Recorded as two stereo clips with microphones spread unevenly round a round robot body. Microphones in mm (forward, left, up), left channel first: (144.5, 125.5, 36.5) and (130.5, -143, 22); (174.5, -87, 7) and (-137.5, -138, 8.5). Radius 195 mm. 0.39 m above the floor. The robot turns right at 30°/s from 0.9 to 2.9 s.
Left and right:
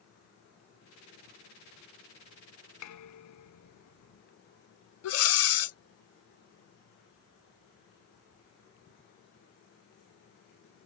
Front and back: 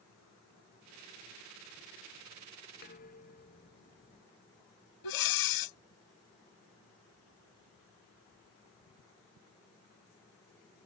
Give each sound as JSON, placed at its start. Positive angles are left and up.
{"t": 2.8, "sound": "dishes clattering", "azimuth_deg": 75}
{"t": 5.0, "sound": "breathing", "azimuth_deg": 50}